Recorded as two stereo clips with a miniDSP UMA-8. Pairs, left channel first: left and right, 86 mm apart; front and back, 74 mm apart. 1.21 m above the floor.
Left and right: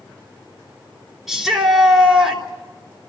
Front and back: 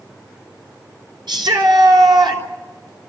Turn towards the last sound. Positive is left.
turn(degrees=180)